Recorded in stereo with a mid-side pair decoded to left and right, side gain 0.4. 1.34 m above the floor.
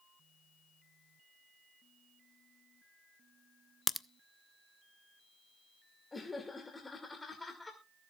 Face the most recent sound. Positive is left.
turn(degrees=25)